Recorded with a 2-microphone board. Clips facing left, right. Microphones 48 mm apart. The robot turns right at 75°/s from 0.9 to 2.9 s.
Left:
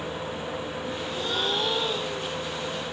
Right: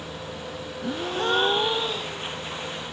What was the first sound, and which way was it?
A gasp, 75° right.